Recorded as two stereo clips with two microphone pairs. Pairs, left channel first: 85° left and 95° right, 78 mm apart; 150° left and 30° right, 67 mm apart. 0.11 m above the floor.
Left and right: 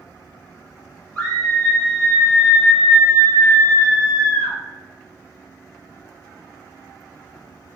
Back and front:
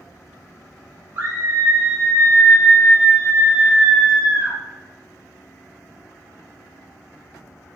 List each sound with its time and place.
1.1 s a scream: 15° left, 1.7 m; by 4.6 s 95° right, 2 m